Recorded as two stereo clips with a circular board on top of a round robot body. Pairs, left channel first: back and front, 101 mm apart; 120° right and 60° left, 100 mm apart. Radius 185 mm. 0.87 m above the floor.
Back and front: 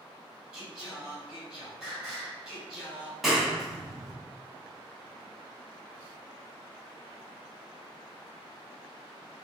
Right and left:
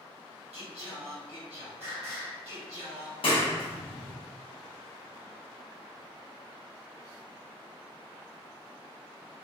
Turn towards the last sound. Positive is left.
turn(degrees=-90)